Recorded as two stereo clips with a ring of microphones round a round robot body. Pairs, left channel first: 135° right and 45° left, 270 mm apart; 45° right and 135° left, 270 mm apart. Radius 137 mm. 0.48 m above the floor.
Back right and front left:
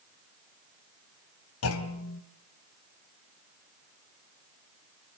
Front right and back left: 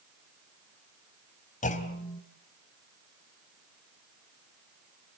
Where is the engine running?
I don't hear an engine running.